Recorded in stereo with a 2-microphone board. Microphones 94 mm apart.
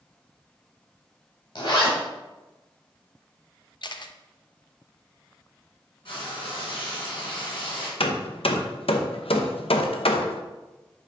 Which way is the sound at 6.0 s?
70° left (ahead or behind).